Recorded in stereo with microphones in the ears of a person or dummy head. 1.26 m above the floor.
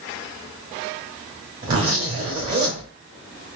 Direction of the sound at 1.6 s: 25° right (ahead or behind).